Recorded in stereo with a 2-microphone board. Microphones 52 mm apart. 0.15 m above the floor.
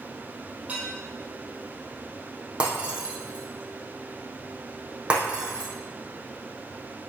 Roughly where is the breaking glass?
Centre.